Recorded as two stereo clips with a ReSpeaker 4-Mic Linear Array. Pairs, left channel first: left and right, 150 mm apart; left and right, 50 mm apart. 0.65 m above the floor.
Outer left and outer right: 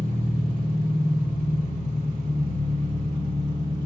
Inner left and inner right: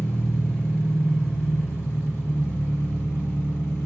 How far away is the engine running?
About 1.5 m.